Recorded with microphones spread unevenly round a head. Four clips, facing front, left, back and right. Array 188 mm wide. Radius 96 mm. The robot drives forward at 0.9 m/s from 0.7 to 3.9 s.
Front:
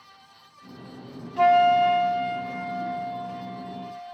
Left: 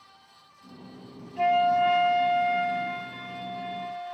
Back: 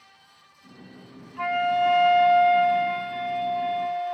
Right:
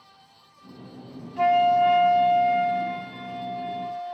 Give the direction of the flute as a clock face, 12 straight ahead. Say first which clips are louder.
Right 3 dB, front 6 dB; 12 o'clock.